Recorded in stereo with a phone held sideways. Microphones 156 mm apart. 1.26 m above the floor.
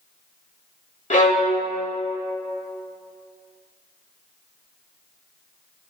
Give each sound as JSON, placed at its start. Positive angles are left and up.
{"t": 1.1, "sound": "a violin", "side_deg": 55, "distance_m": 1.5}